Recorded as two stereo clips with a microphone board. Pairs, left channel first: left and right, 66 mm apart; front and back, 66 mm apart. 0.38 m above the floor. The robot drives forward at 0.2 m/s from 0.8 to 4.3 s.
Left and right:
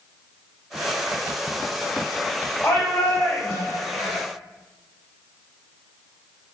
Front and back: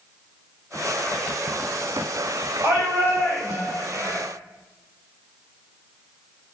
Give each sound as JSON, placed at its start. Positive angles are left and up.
{"t": 2.6, "sound": "a shout", "azimuth_deg": 125, "distance_m": 2.0}